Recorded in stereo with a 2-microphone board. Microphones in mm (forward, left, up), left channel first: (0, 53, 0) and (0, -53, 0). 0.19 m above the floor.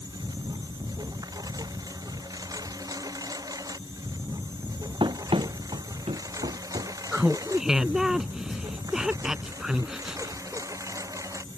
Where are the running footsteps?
50° right (ahead or behind); by 6.9 s 80° right.